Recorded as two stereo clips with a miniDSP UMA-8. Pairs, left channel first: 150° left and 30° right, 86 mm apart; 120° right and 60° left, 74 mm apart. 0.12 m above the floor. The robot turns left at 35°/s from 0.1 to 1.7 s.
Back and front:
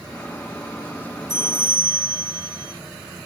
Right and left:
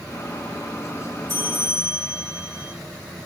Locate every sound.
1.3 s a bell: 10° left, 5 m; by 2.7 s 5° right, 5 m